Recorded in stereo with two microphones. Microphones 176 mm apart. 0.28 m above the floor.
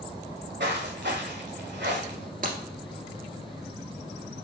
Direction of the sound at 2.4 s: 50° right (ahead or behind).